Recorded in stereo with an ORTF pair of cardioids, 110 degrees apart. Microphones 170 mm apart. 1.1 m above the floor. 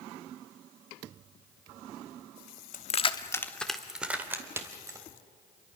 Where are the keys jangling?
50° left, 1.2 m; by 5.0 s 20° right, 3.5 m.